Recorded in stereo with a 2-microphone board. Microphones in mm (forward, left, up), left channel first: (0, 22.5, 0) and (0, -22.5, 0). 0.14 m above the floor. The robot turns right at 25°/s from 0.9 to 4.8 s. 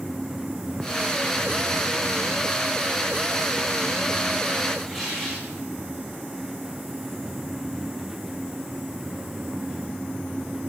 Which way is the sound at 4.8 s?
10° right (ahead or behind).